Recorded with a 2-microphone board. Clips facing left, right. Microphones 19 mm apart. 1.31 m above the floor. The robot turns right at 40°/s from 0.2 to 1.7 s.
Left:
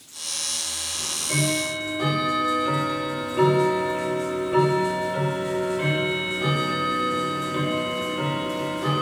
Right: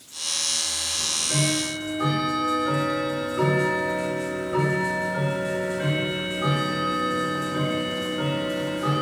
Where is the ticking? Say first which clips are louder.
Even; 40° left, 3.5 m; by 9.0 s 70° left, 3.5 m.